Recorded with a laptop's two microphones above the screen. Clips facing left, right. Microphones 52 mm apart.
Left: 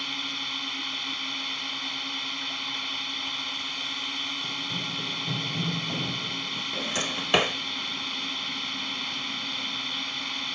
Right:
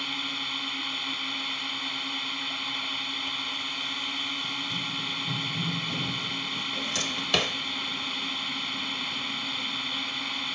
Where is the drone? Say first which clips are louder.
Right 1 dB; 5° right (ahead or behind).